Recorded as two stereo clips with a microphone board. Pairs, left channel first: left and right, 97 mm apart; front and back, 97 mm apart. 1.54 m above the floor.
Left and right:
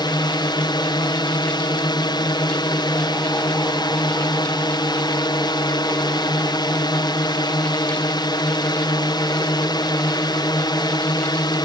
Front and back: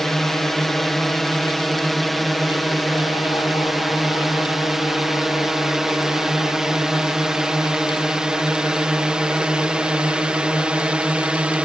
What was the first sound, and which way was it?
A drone, 85° left.